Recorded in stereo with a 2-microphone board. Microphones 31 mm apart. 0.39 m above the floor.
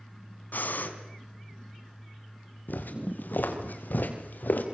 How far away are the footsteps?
About 5 m.